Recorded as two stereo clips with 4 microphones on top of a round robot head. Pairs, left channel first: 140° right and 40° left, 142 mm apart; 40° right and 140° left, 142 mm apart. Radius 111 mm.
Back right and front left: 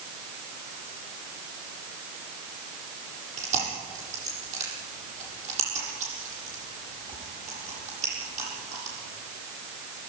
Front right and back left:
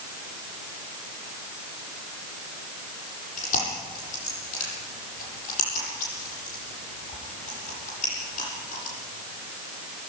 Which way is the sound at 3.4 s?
5° right.